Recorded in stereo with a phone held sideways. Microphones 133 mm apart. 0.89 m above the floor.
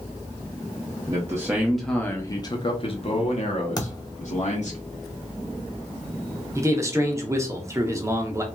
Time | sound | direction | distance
1.1 | a man speaking | 30° right (ahead or behind) | 0.7 m
3.8 | a thud | 30° left (ahead or behind) | 0.8 m
6.5 | a man speaking | 20° right (ahead or behind) | 0.6 m